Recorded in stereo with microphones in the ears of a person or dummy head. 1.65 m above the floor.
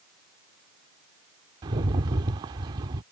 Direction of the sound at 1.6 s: 25° right (ahead or behind).